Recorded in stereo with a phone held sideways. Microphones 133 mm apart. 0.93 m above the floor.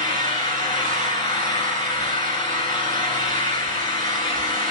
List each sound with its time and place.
0.0 s an engine running: 30° left (ahead or behind), 9.5 m